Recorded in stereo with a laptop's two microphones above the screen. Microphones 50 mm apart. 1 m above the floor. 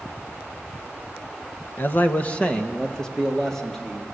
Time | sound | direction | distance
1.8 | a man speaking | 45° left (ahead or behind) | 0.8 m